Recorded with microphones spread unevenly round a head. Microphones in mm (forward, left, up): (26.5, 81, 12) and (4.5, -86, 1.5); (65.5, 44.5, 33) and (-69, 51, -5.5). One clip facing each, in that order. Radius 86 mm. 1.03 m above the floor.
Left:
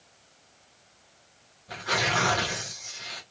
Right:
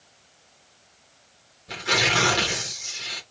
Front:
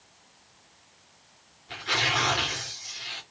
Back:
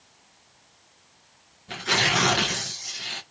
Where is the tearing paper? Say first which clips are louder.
Right 3 dB, back 4 dB; 155° right, 1.4 m.